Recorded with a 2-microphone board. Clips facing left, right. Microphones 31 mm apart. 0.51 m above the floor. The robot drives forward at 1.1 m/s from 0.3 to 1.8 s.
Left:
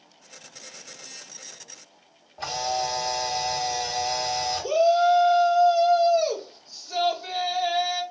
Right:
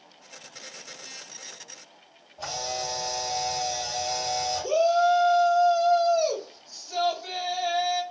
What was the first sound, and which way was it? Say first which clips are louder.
A camera shutter: left 5 dB; 45° left (ahead or behind).